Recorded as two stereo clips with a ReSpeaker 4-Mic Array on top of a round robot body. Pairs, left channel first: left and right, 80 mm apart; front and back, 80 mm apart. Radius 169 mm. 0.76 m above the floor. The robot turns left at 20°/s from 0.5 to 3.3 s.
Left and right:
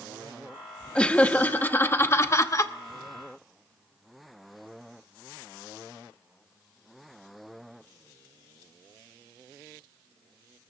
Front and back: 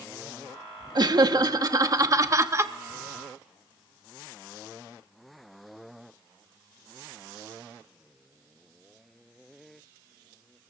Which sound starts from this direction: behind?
Laughter, at 0.9 s.